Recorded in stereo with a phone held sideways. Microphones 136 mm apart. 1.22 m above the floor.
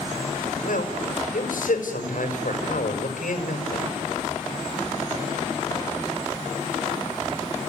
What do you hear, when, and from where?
0.6 s a man speaking: 85° left, 6 m